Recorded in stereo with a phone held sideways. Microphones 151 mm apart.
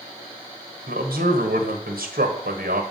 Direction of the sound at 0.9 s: 80° right.